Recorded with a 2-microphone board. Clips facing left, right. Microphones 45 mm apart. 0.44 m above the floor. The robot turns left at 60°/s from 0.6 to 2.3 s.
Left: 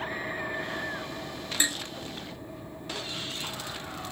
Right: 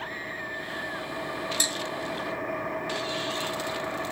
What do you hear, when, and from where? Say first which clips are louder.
0.0 s an engine running: left 1 dB; 10° left; by 4.1 s 95° right
1.6 s dishes clattering: left 6 dB; 25° left (ahead or behind); by 1.8 s 15° left (ahead or behind)